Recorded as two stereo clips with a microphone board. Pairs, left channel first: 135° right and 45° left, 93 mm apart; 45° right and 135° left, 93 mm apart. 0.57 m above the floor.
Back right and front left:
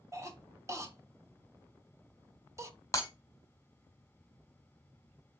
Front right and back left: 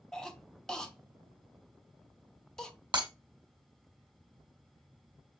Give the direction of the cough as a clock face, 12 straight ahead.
11 o'clock.